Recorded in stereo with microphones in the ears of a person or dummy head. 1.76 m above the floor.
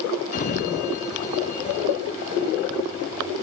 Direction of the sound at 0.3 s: 45° left (ahead or behind).